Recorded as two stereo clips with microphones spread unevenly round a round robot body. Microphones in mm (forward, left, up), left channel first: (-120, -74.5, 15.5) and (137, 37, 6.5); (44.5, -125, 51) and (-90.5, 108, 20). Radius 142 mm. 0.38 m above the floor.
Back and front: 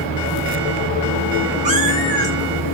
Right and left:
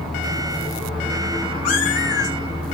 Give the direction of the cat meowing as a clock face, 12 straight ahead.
1 o'clock.